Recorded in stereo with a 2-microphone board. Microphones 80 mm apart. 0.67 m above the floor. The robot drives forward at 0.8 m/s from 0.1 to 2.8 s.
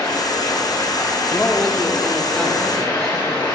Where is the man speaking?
20° left (ahead or behind), 0.9 m; by 3.5 s 10° left (ahead or behind), 2.0 m.